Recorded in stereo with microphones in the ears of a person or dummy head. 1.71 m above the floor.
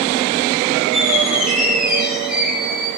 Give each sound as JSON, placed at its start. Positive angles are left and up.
{"t": 0.9, "sound": "a squeak", "side_deg": 0, "distance_m": 7.5}